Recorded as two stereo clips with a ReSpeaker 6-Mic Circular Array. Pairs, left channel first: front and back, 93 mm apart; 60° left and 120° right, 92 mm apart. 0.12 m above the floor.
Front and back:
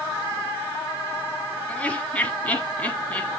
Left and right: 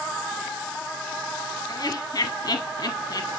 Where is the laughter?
70° left, 2 m.